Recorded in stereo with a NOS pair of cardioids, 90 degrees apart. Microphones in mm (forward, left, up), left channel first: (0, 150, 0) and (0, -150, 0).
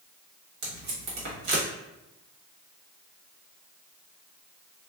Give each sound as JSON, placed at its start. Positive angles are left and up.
{"t": 0.6, "sound": "tape being pulled", "azimuth_deg": -65, "distance_m": 1.3}